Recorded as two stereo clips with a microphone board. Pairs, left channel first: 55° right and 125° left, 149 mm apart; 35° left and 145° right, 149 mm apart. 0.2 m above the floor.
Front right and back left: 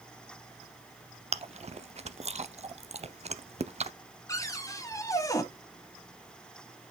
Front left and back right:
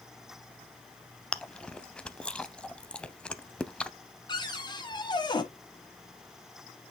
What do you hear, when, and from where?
1.3 s chewing: 115° left, 0.5 m
4.3 s a cupboard door: 5° right, 1.1 m